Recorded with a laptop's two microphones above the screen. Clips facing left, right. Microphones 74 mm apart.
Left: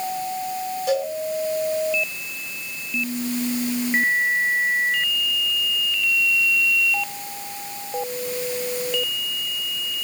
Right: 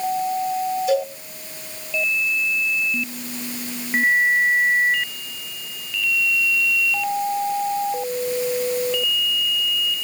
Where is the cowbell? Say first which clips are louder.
Even; 70° left (ahead or behind), 6 m.